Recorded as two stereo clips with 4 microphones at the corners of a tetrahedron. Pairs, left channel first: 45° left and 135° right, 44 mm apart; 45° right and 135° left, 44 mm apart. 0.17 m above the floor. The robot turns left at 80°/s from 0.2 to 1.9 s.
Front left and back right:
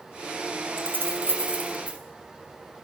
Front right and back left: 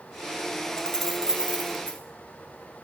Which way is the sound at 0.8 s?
105° right.